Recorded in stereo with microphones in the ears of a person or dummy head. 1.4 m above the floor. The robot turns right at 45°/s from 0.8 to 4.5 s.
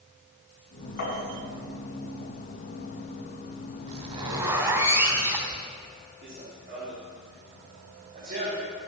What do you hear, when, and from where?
1.0 s tapping: 70° left (ahead or behind), 5.5 m; by 1.2 s 60° left (ahead or behind), 5.5 m
3.9 s a zipper: 45° right (ahead or behind), 3 m; by 5.7 s 20° right (ahead or behind), 3 m
6.2 s running footsteps: 50° right (ahead or behind), 5 m; by 8.8 s 40° right (ahead or behind), 4 m